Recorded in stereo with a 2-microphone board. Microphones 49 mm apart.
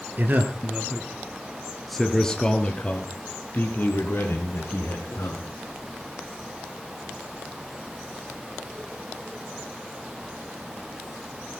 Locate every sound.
0.2 s a man speaking: 40° right (ahead or behind), 3 m; by 5.5 s 55° left (ahead or behind), 5.5 m